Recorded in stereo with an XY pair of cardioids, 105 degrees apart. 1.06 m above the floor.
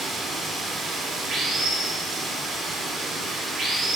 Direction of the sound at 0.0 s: 70° right.